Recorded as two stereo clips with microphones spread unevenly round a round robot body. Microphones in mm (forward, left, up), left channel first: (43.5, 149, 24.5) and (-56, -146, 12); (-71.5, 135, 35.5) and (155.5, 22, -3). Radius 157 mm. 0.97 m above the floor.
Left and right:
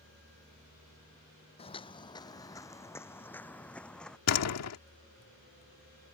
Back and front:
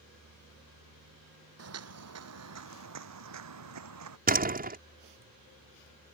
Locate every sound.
1.6 s footsteps: straight ahead; by 4.2 s 15° right
4.3 s a door slam: 30° left